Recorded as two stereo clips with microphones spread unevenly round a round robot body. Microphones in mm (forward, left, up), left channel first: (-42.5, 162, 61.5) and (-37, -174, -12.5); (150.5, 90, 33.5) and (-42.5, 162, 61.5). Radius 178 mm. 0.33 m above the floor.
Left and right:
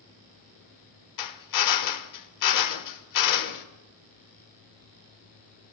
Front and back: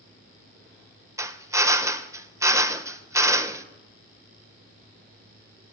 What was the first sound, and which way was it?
A drill, 80° left.